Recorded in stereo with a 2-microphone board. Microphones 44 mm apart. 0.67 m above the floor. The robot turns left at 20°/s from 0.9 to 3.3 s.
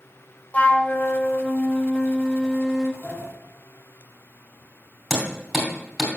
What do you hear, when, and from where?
0.5 s a flute: 35° left, 0.6 m; by 2.9 s 5° right, 0.6 m
3.0 s a sliding door: 45° left (ahead or behind), 1.1 m; by 3.3 s 40° left (ahead or behind), 1.1 m
5.1 s hammering: centre (ahead or behind), 3 m